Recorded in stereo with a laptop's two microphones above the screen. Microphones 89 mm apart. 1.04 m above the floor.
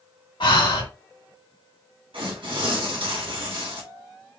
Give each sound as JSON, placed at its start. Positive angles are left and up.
{"t": 0.4, "sound": "breathing", "side_deg": 70, "distance_m": 1.9}
{"t": 2.1, "sound": "tearing paper", "side_deg": -75, "distance_m": 2.5}